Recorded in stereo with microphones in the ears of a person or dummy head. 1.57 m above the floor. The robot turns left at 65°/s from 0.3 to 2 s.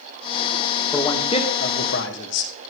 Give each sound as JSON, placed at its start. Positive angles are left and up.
{"t": 0.9, "sound": "a man speaking", "azimuth_deg": 175, "distance_m": 2.5}